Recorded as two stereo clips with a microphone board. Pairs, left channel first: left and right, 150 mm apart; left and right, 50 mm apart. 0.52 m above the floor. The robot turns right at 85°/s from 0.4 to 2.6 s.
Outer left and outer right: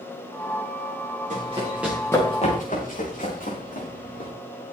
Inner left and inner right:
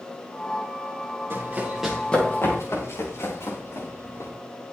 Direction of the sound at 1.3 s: 55° right (ahead or behind).